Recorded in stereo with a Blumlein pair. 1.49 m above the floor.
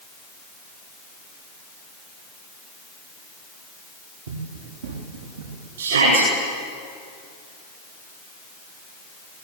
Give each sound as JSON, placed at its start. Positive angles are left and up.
{"t": 4.3, "sound": "running footsteps", "azimuth_deg": -60, "distance_m": 5.0}
{"t": 5.8, "sound": "a shout", "azimuth_deg": -65, "distance_m": 8.5}